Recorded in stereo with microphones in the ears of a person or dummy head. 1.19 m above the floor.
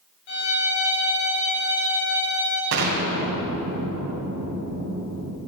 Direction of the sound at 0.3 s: 70° left (ahead or behind).